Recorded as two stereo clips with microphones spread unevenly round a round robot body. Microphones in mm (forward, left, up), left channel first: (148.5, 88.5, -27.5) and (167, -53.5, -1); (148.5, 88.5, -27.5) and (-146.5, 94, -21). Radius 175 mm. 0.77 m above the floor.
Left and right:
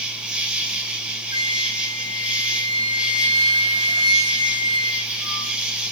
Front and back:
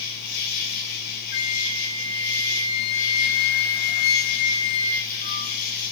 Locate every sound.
0.0 s an insect: straight ahead, 2.5 m
1.3 s a flute: 20° right, 2 m